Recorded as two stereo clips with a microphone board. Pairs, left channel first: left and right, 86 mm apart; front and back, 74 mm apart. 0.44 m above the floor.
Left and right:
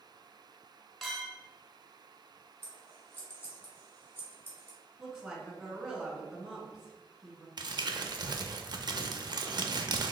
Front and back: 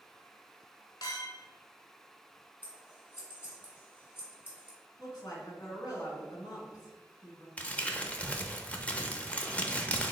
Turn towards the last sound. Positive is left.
turn(degrees=-70)